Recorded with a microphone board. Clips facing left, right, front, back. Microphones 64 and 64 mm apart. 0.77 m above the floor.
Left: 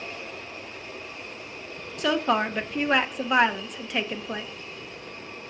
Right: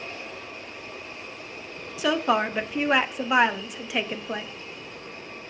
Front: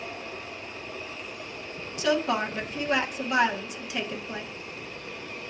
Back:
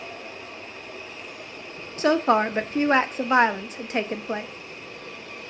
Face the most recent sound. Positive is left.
turn(degrees=-175)